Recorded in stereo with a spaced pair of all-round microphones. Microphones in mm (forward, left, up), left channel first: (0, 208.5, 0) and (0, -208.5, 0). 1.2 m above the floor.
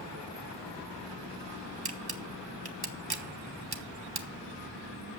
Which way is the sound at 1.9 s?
60° right (ahead or behind).